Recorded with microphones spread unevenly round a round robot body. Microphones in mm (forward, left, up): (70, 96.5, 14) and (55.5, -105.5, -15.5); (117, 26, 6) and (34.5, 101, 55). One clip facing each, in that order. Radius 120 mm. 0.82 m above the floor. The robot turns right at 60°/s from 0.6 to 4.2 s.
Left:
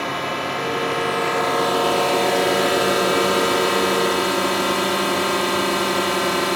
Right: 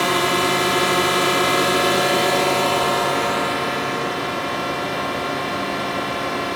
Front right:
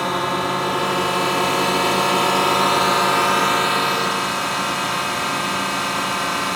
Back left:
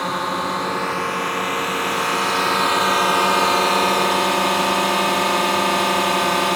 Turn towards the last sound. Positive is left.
turn(degrees=110)